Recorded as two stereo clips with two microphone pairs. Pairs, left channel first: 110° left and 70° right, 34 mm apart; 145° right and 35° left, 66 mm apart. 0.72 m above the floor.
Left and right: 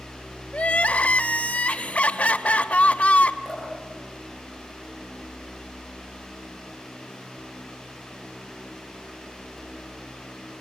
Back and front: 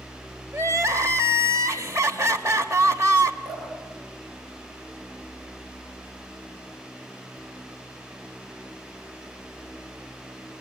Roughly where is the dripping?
Ahead left.